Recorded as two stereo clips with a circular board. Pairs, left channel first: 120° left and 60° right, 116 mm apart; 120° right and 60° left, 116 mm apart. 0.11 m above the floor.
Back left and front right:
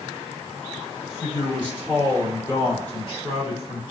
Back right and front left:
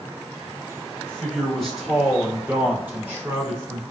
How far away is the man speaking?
About 1.8 m.